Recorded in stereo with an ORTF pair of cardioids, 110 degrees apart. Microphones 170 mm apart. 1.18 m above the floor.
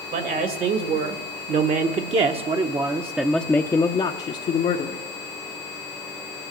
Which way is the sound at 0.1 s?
65° right.